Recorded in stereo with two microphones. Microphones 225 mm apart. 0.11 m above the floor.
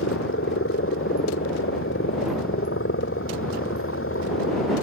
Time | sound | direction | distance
0.0 | a helicopter | 70° left (ahead or behind) | ?